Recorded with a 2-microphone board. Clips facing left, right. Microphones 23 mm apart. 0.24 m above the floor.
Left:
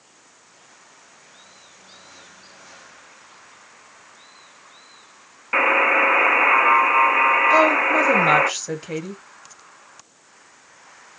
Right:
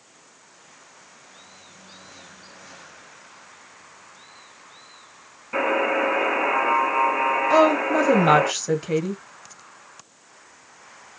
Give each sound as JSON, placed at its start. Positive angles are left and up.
{"t": 5.5, "sound": "a buzzer", "side_deg": 55, "distance_m": 1.3}
{"t": 7.5, "sound": "a woman speaking", "side_deg": -5, "distance_m": 0.9}